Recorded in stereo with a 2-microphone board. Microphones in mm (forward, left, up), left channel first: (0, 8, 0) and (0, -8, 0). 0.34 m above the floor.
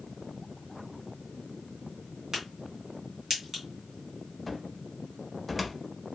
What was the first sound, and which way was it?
A crack, 35° right (ahead or behind).